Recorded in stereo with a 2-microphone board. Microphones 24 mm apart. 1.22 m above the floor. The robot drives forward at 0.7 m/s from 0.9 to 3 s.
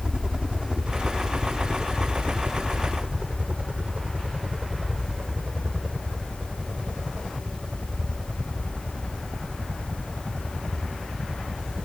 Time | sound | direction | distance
0.0 | a helicopter | 40° right (ahead or behind) | ?